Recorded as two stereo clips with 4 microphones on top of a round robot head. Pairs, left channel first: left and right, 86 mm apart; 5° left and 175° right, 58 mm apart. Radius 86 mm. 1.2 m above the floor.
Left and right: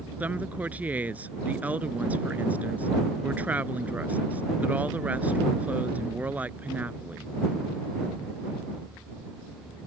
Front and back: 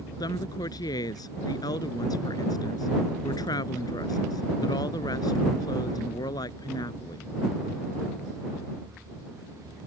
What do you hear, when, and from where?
0.2 s a woman speaking: 20° right